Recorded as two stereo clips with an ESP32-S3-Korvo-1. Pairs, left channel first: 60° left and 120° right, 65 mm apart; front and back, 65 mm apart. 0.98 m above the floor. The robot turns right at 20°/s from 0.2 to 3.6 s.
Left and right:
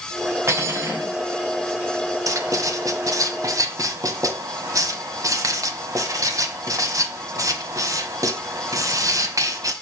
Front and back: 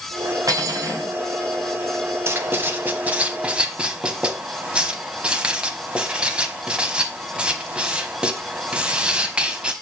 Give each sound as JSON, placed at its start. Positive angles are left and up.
{"t": 0.5, "sound": "cutlery clinking", "azimuth_deg": -160, "distance_m": 2.0}
{"t": 2.3, "sound": "writing", "azimuth_deg": -135, "distance_m": 1.4}